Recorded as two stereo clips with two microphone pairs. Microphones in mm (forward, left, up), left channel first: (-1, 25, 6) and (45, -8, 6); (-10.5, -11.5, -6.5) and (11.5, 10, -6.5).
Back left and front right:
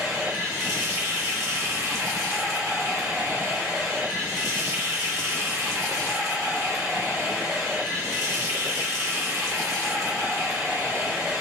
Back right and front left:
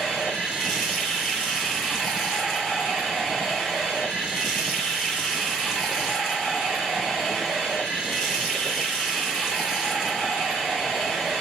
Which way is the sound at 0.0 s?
45° right.